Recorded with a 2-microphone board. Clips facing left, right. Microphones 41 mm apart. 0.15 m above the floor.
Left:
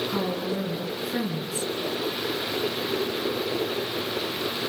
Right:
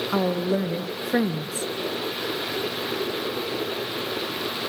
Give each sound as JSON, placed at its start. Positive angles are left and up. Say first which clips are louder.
{"t": 0.1, "sound": "a woman speaking", "louder": "right 4 dB", "side_deg": -55, "distance_m": 2.0}